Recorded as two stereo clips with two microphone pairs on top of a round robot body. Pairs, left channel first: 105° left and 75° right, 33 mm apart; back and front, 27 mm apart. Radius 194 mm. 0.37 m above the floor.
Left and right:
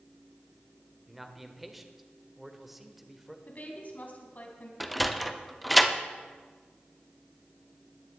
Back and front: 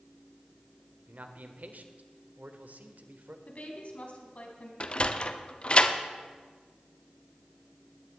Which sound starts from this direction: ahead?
A man speaking, at 1.1 s.